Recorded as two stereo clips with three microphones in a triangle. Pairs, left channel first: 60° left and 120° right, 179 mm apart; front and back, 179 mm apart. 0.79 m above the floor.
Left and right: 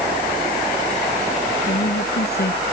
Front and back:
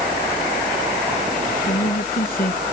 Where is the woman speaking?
35° left.